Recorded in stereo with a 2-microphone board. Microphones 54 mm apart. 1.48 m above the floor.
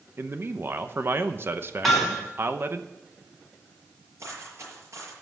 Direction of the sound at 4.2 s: 65° right (ahead or behind).